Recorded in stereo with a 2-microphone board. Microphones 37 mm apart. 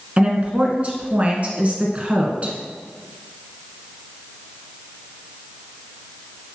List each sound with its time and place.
0.2 s a woman speaking: 35° right (ahead or behind), 1.7 m